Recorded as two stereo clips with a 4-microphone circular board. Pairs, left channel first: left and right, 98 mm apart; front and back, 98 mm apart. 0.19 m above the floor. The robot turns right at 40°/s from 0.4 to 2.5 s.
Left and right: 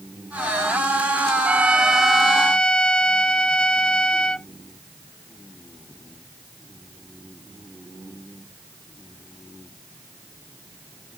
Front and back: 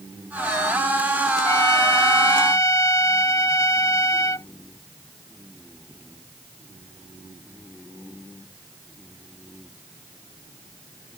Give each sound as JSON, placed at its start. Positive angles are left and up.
{"t": 1.4, "sound": "a trumpet", "azimuth_deg": -25}